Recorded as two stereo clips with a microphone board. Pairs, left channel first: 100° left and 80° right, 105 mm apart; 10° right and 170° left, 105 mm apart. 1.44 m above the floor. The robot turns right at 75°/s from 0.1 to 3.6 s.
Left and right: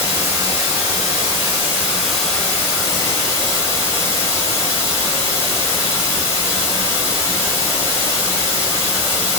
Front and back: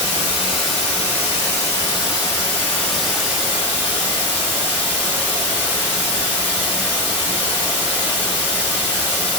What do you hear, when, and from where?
0.0 s running water: 145° right, 1.3 m; by 9.4 s 120° left, 1.3 m